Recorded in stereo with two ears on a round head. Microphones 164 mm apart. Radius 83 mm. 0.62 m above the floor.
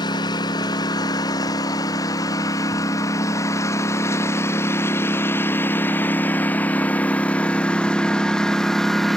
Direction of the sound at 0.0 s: 20° left (ahead or behind).